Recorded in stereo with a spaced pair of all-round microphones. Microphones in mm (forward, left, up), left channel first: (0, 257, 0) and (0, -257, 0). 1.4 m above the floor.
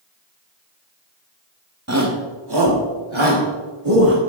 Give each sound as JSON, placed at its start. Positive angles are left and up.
{"t": 1.9, "sound": "a shout", "side_deg": -30, "distance_m": 1.5}